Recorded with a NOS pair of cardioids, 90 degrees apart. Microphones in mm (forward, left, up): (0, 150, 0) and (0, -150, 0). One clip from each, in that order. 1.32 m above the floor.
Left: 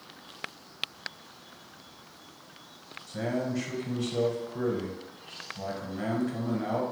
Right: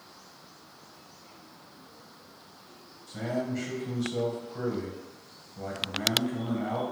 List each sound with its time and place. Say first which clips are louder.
3.1 s a man speaking: left 1 dB; 15° left, 1.3 m